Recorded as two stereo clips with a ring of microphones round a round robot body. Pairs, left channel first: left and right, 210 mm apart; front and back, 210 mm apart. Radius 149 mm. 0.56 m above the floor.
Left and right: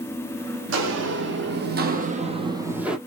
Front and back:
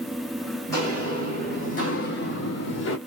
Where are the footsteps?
80° right, 1.4 m; by 3.0 s straight ahead, 0.9 m.